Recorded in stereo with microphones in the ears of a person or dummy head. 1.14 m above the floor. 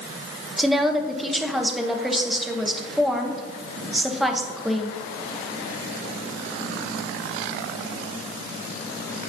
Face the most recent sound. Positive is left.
turn(degrees=0)  # may be behind; listen again after turning